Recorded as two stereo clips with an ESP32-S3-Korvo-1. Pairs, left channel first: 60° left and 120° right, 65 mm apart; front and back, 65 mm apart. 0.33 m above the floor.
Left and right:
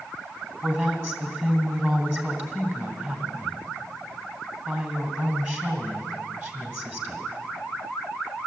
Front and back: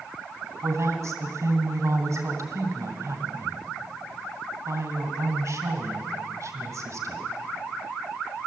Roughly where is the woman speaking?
Behind.